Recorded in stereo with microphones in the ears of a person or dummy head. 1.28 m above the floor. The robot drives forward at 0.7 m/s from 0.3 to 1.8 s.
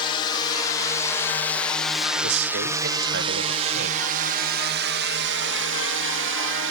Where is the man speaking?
55° right (ahead or behind).